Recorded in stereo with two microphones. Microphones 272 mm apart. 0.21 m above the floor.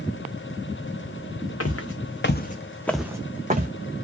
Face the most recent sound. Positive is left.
turn(degrees=-35)  # may be behind; listen again after turning